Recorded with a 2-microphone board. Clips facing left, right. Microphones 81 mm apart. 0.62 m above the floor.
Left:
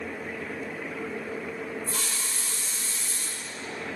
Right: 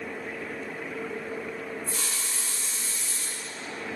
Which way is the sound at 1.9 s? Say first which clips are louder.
Left 1 dB; 70° left (ahead or behind).